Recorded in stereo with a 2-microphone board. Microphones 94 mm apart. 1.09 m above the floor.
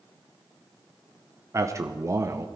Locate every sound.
1.5 s a man speaking: 35° right (ahead or behind), 0.7 m